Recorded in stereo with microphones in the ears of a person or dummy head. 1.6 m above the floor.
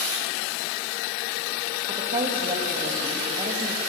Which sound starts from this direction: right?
A woman speaking, at 1.9 s.